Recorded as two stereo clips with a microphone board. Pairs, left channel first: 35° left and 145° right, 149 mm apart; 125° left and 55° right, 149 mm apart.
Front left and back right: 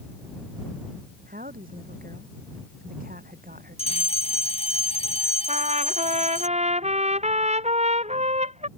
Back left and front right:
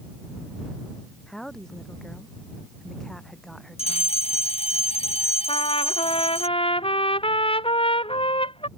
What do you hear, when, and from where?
1.3 s a woman speaking: 150° right
3.8 s a fire alarm: 80° left
5.5 s a trumpet: 175° left